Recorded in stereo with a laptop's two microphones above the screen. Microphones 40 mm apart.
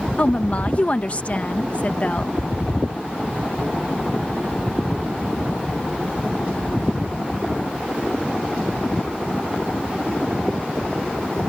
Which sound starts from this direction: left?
A woman speaking, at 0.2 s.